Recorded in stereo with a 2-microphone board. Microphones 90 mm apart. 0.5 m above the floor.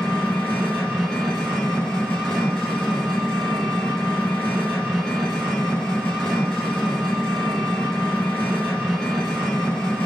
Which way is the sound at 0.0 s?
10° left (ahead or behind).